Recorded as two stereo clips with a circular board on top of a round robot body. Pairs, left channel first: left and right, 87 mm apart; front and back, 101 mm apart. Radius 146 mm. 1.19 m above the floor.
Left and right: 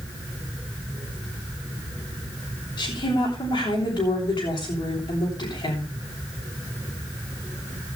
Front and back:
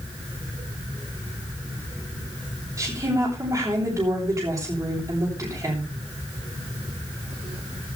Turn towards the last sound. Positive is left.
turn(degrees=125)